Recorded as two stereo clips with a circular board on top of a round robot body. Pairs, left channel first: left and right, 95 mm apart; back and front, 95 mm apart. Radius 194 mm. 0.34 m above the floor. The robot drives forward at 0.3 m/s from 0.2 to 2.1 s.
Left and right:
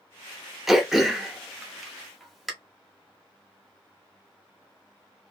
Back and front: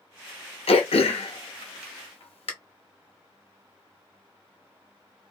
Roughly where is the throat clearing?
Behind.